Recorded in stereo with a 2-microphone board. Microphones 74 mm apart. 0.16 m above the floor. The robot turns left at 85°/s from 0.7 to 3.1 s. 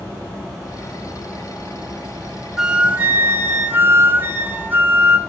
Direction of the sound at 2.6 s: 10° right.